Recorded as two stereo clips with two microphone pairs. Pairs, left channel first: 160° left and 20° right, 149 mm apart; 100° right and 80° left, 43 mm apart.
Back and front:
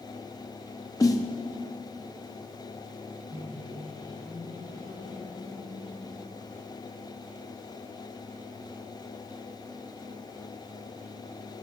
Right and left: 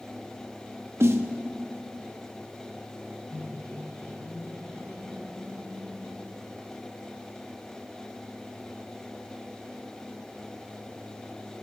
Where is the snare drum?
90° left, 1.0 m.